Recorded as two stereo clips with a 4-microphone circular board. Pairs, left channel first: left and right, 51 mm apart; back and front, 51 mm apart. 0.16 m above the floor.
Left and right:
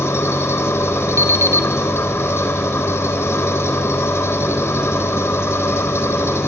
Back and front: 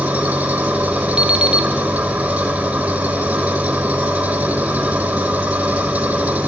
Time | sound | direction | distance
0.0 | an engine running | 65° left | 3.5 m
1.2 | an alarm clock | 70° right | 1.7 m